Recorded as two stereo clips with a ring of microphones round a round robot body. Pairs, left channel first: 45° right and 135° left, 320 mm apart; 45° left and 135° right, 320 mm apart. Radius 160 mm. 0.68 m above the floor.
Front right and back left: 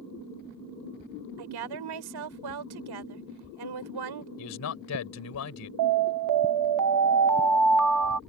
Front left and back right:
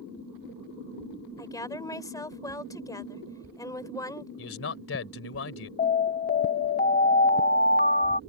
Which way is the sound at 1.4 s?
125° left.